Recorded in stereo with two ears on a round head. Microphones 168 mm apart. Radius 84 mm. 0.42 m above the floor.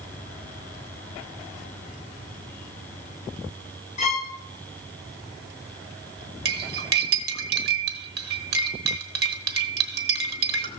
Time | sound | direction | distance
4.0 | a violin | 40° left (ahead or behind) | 0.9 m
6.5 | cutlery clinking | 60° right (ahead or behind) | 1.2 m